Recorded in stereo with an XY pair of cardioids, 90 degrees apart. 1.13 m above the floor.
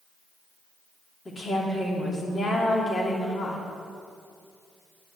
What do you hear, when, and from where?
1.2 s a woman speaking: 45° left, 3 m